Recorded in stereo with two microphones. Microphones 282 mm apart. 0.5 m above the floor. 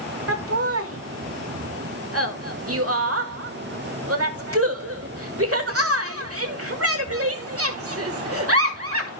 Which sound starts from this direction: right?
Laughter, at 0.3 s.